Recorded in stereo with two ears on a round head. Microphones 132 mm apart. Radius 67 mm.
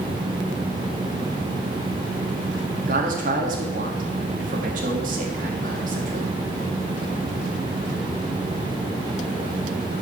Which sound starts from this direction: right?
A man speaking, at 2.9 s.